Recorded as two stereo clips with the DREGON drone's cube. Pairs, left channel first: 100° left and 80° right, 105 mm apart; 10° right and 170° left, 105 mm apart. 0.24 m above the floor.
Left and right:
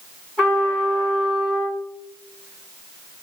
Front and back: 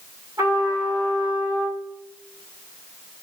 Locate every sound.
0.4 s a trumpet: 165° right, 1.8 m